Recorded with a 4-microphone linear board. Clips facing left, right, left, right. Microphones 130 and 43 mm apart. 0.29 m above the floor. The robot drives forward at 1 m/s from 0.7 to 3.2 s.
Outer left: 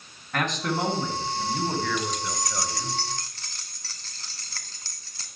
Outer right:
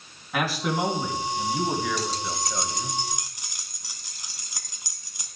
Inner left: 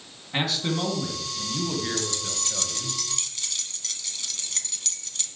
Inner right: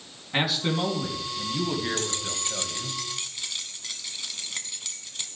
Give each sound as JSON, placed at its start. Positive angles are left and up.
{"t": 0.3, "sound": "a man speaking", "side_deg": -5, "distance_m": 3.5}
{"t": 2.0, "sound": "keys jangling", "side_deg": -35, "distance_m": 0.7}